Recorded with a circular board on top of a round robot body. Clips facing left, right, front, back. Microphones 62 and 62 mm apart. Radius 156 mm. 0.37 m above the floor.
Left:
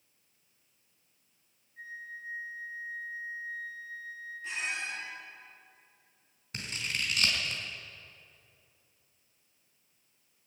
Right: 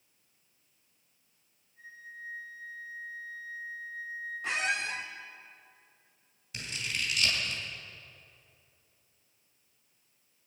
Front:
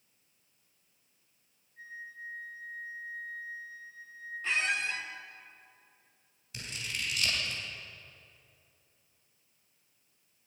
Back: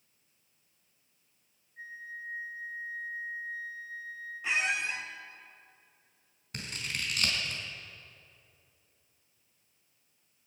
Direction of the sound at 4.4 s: 105° right.